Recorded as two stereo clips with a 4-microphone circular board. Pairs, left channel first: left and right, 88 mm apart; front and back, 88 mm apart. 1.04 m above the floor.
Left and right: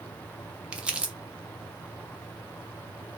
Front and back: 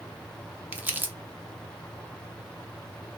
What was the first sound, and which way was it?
Crumpling, 150° right.